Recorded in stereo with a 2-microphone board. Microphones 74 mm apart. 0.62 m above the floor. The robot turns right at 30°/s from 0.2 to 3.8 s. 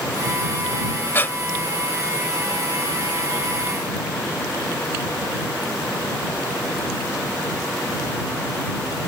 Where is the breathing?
30° left (ahead or behind); by 1.4 s 25° left (ahead or behind).